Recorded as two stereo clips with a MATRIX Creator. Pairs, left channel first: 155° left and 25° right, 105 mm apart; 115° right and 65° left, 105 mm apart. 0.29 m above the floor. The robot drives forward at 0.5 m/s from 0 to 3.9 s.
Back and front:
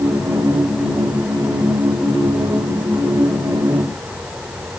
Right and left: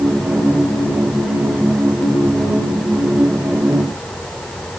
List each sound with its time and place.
Only background noise.